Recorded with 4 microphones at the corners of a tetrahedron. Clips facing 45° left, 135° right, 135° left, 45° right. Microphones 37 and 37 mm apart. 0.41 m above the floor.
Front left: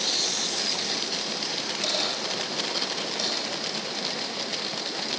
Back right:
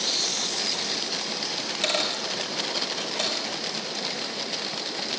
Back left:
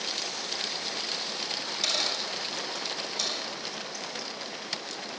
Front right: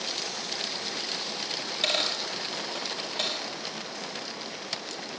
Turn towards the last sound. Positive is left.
turn(degrees=-100)